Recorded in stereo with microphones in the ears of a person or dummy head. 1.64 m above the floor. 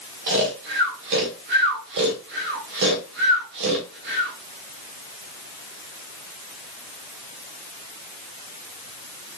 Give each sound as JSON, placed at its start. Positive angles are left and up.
{"t": 0.3, "sound": "snoring", "side_deg": -60, "distance_m": 1.3}